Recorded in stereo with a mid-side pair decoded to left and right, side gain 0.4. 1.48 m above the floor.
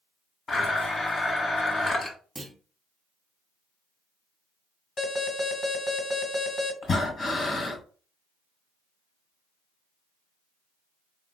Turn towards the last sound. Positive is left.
turn(degrees=45)